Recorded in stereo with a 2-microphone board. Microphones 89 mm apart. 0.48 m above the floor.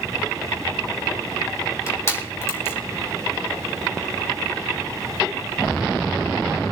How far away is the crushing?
About 4 m.